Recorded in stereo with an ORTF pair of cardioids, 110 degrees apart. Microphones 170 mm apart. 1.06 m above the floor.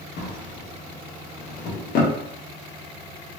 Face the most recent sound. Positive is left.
turn(degrees=55)